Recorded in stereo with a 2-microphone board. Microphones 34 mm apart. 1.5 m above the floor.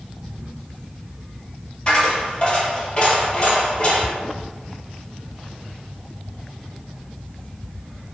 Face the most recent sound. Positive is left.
turn(degrees=30)  # may be behind; listen again after turning